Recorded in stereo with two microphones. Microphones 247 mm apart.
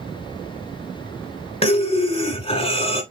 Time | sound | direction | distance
1.6 | breathing | 25° left (ahead or behind) | 1.3 m